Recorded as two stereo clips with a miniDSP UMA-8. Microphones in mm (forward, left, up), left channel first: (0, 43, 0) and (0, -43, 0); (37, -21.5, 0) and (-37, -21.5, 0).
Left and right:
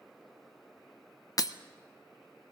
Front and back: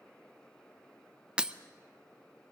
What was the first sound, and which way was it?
Breaking glass, 110° left.